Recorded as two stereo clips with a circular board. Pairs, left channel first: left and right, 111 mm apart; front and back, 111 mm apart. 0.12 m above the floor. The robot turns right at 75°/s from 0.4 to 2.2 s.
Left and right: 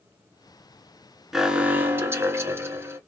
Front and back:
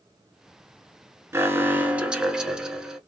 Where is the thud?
I don't hear a thud.